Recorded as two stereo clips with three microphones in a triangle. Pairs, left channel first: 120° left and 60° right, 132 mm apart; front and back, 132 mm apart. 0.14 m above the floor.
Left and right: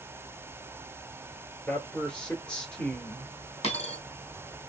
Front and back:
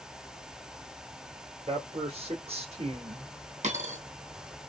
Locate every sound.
1.7 s a man speaking: 160° right, 2 m
3.6 s a dropped coin: 160° left, 1.9 m